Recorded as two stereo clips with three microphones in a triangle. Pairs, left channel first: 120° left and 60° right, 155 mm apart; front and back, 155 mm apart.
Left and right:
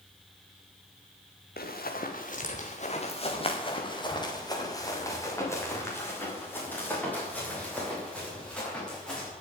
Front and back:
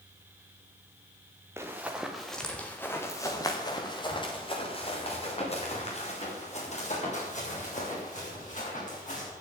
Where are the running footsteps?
105° left, 2 m; by 9.3 s 35° left, 8.5 m.